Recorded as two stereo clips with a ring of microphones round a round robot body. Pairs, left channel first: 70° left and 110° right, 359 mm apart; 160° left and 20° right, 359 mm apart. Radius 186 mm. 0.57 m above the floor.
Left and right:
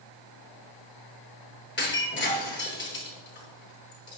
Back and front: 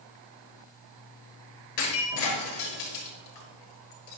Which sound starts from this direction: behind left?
Breaking glass, at 1.8 s.